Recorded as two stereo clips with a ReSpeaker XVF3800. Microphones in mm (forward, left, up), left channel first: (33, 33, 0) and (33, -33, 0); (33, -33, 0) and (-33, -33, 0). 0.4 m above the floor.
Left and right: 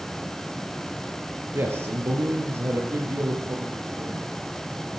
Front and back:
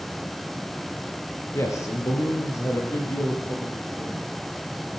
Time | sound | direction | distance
1.5 | a man speaking | 40° right | 6.5 m